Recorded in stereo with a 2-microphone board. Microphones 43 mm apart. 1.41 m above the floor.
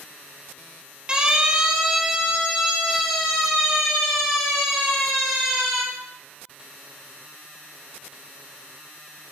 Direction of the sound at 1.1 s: 25° right (ahead or behind).